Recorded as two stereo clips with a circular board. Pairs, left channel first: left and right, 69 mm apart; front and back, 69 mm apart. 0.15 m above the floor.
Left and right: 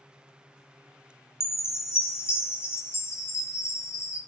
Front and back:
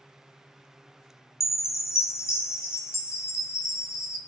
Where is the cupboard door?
No cupboard door in this recording.